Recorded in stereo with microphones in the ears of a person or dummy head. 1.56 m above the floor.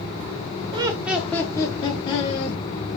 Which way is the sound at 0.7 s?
30° right (ahead or behind).